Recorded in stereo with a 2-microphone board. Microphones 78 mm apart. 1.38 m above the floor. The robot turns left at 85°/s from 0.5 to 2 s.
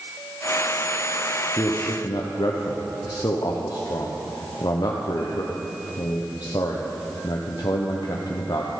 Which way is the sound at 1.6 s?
40° left (ahead or behind).